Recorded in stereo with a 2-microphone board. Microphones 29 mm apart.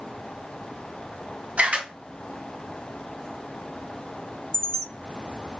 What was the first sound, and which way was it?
A camera shutter, 50° right (ahead or behind).